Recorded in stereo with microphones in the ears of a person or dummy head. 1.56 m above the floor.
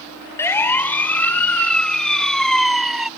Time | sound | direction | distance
0.4 | a siren | 20° left (ahead or behind) | ?